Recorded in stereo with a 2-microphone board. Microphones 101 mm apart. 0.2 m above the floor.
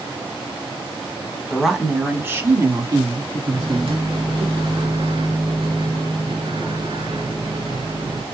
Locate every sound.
1.5 s a woman speaking: 5° left (ahead or behind), 1.2 m; by 4.5 s 65° right (ahead or behind), 2.5 m
3.5 s a microwave: 65° right (ahead or behind), 1.8 m